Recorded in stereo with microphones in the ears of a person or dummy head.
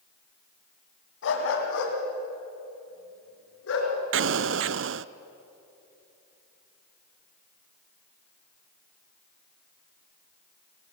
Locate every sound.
1.2 s a dog barking: 75° left (ahead or behind), 3 m
4.1 s an explosion: 60° right (ahead or behind), 0.5 m